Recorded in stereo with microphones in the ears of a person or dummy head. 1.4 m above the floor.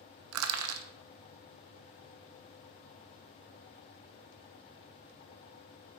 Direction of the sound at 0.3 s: 80° right.